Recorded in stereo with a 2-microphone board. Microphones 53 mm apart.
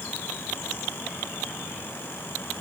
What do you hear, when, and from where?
Only background noise.